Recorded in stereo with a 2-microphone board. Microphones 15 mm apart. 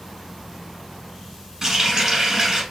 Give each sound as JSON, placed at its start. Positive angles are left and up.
{"t": 1.6, "sound": "a running tap", "side_deg": -35, "distance_m": 1.1}